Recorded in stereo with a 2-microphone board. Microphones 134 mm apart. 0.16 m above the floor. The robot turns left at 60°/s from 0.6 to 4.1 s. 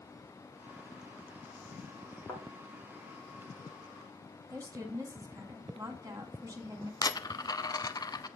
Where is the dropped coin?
30° left (ahead or behind), 0.5 m.